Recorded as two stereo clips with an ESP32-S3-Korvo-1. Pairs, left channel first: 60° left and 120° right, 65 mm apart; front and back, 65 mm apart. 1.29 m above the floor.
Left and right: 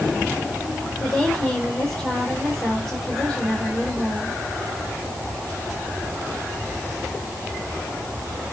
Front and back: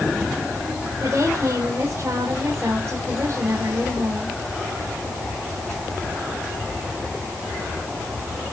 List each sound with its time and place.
1.0 s a woman speaking: 135° left, 4 m